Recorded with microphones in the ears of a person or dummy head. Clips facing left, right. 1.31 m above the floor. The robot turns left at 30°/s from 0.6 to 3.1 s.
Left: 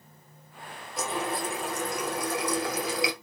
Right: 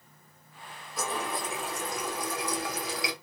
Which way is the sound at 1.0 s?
155° left.